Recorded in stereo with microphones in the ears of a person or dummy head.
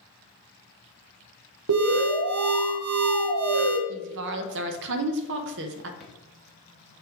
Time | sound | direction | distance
1.7 | an alarm | 75° right (ahead or behind) | 1.0 m
3.9 | a woman speaking | 60° right (ahead or behind) | 1.0 m
6.0 | a drawer | centre (ahead or behind) | 1.1 m